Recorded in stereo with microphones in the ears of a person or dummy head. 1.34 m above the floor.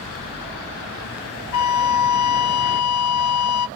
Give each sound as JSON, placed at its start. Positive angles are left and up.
{"t": 1.5, "sound": "a flute", "side_deg": 75, "distance_m": 0.7}